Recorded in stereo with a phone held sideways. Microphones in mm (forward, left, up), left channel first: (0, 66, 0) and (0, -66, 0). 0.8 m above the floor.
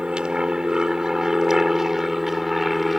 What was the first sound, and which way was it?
An aircraft, 5° right (ahead or behind).